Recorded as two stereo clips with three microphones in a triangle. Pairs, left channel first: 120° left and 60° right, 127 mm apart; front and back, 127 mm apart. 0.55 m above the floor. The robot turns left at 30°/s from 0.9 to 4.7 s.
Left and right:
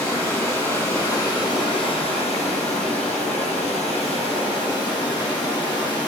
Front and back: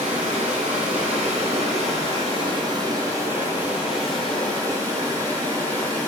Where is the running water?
175° right, 1.2 m; by 6.1 s 70° left, 1.2 m.